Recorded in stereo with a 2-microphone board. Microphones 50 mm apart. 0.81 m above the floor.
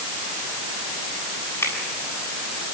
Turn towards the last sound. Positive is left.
turn(degrees=70)  # may be behind; listen again after turning